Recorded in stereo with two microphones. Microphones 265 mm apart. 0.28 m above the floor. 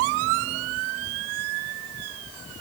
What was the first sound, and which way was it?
Only background noise.